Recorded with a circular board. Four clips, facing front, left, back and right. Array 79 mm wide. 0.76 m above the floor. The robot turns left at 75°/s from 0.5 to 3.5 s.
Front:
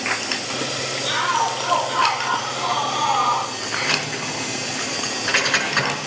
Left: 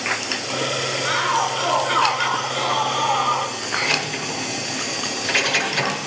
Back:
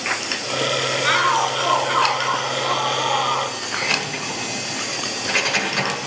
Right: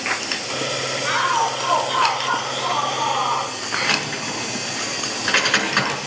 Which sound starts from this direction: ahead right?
Keys jangling, at 3.8 s.